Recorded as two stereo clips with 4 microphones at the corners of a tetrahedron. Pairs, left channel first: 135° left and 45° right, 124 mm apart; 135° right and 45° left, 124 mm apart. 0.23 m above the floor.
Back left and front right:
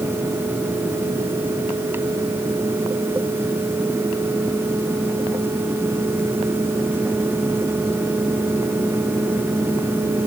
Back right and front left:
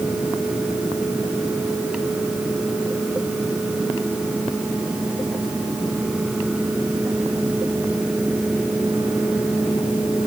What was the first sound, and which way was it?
Only background noise.